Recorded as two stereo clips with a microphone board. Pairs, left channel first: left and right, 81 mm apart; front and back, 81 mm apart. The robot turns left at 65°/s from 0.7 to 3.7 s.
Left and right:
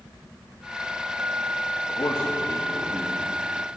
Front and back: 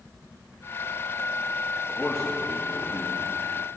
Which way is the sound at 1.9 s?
75° left.